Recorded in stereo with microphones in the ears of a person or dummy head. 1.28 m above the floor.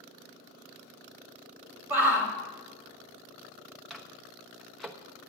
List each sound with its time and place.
1.9 s a shout: 10° right (ahead or behind), 2.5 m
3.9 s a microwave: centre (ahead or behind), 0.8 m